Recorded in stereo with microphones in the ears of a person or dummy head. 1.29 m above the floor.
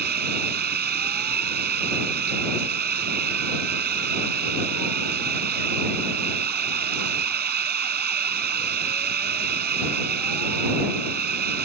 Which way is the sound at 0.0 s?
55° right (ahead or behind).